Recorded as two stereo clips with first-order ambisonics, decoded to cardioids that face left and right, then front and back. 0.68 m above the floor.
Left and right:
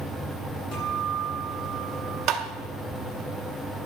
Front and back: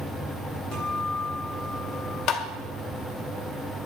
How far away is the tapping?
About 1.9 m.